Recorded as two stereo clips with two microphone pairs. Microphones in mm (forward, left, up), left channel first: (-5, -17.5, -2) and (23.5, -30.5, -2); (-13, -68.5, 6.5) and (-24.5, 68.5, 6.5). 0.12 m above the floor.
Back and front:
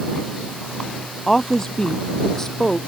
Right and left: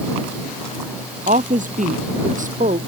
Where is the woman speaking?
85° left; by 2.8 s 80° left.